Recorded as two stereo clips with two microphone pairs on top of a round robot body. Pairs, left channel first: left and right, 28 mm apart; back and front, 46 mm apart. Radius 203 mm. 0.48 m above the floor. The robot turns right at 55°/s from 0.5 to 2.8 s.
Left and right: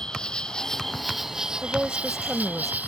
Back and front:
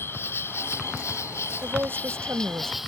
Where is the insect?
150° left; by 2.9 s 85° right.